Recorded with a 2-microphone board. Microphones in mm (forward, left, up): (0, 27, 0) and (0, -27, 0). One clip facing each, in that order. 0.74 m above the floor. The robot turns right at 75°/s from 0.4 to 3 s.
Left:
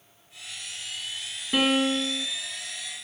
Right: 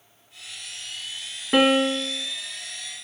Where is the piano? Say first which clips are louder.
Right 4 dB; 40° right, 0.5 m; by 2.3 s 15° left, 0.5 m.